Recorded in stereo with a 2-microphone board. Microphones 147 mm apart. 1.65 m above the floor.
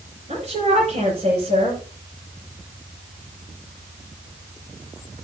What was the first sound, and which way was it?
A woman speaking, 50° right (ahead or behind).